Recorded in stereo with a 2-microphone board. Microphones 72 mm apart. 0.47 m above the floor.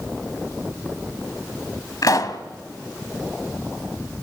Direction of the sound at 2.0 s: 60° left (ahead or behind).